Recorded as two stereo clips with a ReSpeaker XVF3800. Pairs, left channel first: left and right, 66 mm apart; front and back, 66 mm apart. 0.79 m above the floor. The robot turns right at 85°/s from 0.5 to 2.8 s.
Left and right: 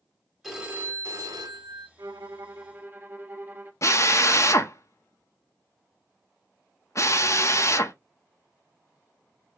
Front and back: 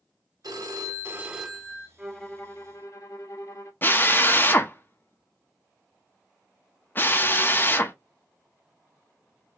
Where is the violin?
100° right, 1.6 m; by 3.7 s 30° right, 1.6 m.